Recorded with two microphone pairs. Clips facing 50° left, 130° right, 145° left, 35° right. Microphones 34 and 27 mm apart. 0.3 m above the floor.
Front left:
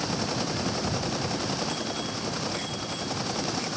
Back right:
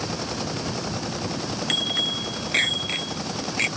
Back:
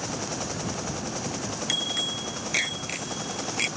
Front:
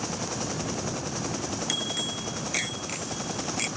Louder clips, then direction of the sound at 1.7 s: Back right 8 dB, back 4 dB; 140° right.